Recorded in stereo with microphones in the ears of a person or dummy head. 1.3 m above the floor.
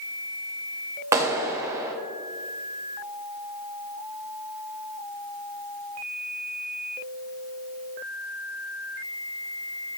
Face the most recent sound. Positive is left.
turn(degrees=-15)  # may be behind; listen again after turning